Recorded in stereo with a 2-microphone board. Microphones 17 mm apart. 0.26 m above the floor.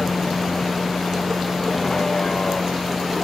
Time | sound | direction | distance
0.0 | a vehicle | 40° left (ahead or behind) | ?